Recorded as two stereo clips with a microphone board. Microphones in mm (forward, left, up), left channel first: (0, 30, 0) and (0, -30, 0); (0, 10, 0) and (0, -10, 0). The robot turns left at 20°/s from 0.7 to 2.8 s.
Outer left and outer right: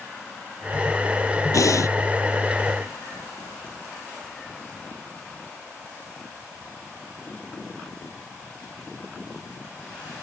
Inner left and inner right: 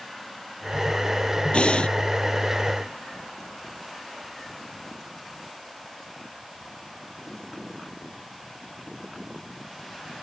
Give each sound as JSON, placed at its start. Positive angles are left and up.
{"t": 1.5, "sound": "breathing", "side_deg": 70}